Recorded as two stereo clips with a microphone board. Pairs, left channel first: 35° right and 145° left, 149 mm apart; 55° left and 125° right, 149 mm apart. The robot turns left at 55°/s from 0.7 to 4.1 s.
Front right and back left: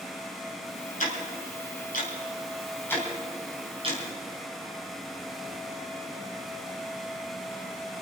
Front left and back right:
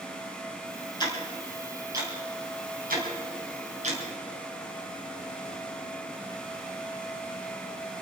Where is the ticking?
5° right, 4 m; by 4.0 s 170° right, 4 m.